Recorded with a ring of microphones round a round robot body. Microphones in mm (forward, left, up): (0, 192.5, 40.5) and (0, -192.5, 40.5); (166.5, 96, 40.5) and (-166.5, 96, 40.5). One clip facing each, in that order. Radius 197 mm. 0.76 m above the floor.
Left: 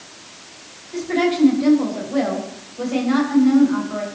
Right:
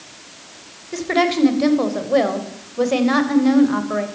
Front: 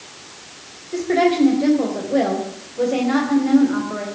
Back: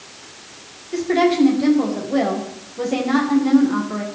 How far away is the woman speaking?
About 3.5 m.